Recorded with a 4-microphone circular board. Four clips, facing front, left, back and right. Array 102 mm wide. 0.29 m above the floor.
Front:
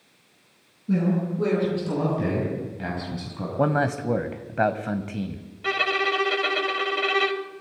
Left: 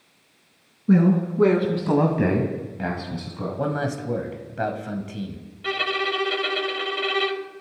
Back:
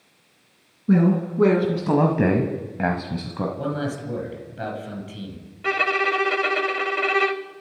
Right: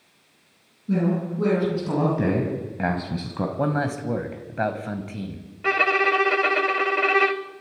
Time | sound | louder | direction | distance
0.9 | a man speaking | left 5 dB, back 5 dB | 130° left | 3 m
3.6 | a man speaking | even, front 4 dB | 15° right | 1.5 m
5.6 | a violin | right 5 dB, back 2 dB | 110° right | 0.8 m